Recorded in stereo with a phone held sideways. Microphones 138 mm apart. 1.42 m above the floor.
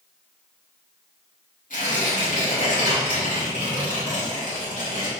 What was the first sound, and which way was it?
Tearing paper, 90° left.